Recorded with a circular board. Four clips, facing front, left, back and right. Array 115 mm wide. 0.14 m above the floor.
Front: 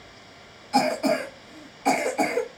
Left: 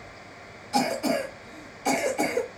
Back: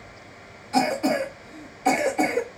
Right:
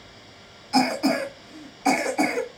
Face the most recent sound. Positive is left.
turn(degrees=-80)